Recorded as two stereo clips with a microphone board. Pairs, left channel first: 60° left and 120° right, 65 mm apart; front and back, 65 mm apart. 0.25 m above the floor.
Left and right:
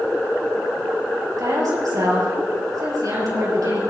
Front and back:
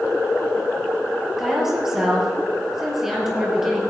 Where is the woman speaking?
95° right, 4.5 m.